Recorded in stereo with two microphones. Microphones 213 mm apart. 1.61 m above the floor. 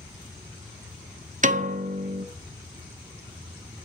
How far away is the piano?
About 0.9 m.